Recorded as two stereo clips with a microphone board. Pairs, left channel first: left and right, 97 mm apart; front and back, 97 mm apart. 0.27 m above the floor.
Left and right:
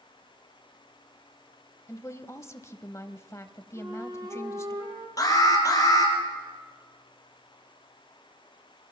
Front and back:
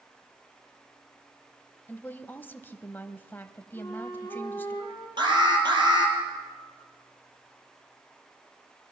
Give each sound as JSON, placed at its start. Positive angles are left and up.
{"t": 1.9, "sound": "a woman speaking", "azimuth_deg": 55, "distance_m": 1.2}
{"t": 3.8, "sound": "a flute", "azimuth_deg": -45, "distance_m": 5.5}
{"t": 5.2, "sound": "an alarm", "azimuth_deg": 145, "distance_m": 4.0}